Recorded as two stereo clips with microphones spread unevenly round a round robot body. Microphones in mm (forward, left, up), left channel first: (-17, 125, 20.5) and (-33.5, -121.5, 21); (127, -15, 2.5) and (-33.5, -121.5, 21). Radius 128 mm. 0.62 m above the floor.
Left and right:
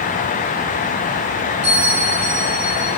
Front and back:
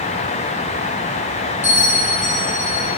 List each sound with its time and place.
1.6 s a bell: 45° right, 4 m